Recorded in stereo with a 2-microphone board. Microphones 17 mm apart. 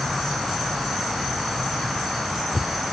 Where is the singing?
I don't hear singing.